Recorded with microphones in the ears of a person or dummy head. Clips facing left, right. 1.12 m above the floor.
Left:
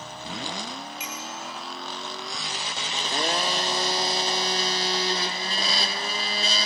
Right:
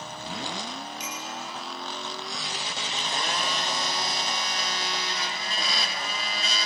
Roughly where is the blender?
Left.